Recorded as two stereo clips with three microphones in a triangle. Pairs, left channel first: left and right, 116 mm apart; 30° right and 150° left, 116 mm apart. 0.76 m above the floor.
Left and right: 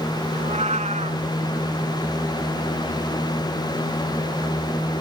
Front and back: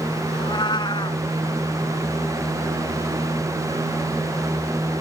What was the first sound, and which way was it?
A cat meowing, 80° right.